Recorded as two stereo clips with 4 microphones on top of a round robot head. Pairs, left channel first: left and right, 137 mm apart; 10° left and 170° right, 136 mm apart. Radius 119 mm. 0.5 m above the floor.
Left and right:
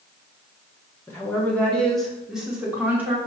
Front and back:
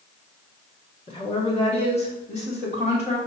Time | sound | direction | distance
1.1 | a woman speaking | 25° left | 1.6 m